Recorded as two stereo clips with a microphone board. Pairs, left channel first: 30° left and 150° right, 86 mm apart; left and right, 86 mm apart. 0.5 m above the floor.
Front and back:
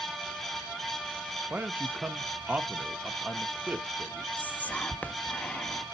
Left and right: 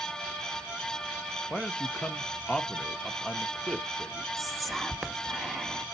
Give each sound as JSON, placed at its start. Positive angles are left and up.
{"t": 1.5, "sound": "a man speaking", "azimuth_deg": 155, "distance_m": 0.7}
{"t": 4.4, "sound": "whispering", "azimuth_deg": 0, "distance_m": 0.8}